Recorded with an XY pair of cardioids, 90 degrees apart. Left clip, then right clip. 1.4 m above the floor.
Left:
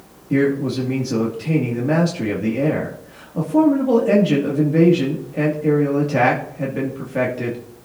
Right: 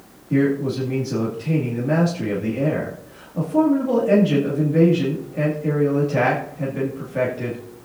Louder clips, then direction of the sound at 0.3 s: Left 2 dB; 35° left.